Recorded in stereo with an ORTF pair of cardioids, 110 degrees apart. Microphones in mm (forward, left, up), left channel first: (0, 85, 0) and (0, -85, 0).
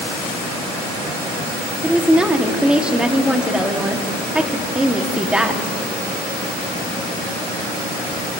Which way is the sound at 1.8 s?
5° right.